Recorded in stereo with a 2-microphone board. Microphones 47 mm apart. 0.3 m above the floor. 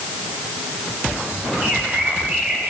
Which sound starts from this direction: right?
A bird, at 1.6 s.